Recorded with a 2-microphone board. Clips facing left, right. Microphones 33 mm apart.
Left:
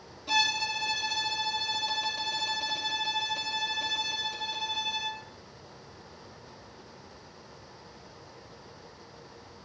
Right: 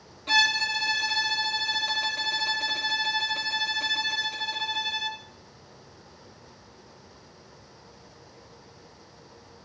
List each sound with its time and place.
0.3 s a violin: 55° right (ahead or behind), 1.4 m